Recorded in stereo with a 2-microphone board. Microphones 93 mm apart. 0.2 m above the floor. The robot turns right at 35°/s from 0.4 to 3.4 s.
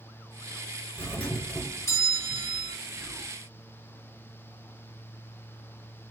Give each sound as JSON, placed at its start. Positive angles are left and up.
{"t": 1.0, "sound": "a doorbell", "azimuth_deg": 30, "distance_m": 1.9}
{"t": 2.9, "sound": "whispering", "side_deg": -20, "distance_m": 1.1}